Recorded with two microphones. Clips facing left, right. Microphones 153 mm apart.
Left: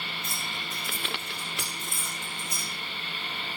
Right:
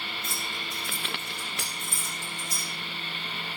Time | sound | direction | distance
0.2 | keys jangling | 85° right | 8 m